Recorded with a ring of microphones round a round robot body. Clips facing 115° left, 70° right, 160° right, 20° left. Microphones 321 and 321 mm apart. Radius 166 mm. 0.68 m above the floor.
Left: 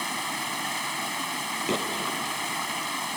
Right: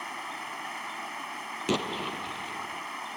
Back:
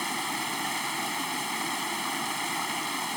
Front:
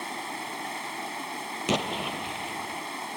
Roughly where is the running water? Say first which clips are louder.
Left 8 dB, back 3 dB; behind left.